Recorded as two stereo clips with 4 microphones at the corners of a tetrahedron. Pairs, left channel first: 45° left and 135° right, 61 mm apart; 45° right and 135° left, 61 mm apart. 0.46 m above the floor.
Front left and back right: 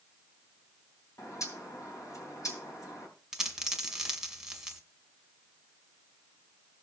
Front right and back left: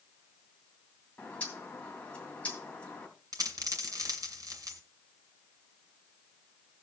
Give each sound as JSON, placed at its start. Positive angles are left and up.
{"t": 1.2, "sound": "a bird", "azimuth_deg": 20, "distance_m": 2.5}
{"t": 3.3, "sound": "a dropped coin", "azimuth_deg": 145, "distance_m": 1.9}